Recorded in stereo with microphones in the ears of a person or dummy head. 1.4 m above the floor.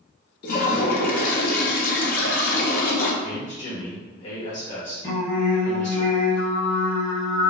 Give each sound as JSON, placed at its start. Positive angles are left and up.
{"t": 0.4, "sound": "a toilet flushing", "side_deg": 40, "distance_m": 0.5}
{"t": 3.2, "sound": "a man speaking", "side_deg": 40, "distance_m": 1.1}
{"t": 5.0, "sound": "singing", "side_deg": 25, "distance_m": 0.9}